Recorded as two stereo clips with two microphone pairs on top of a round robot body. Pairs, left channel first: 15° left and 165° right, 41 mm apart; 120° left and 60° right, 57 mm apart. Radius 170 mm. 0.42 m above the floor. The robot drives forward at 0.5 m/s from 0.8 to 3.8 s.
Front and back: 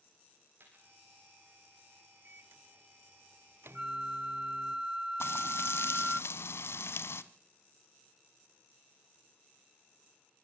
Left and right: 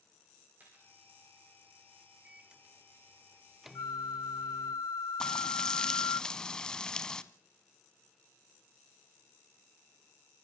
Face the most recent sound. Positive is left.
turn(degrees=40)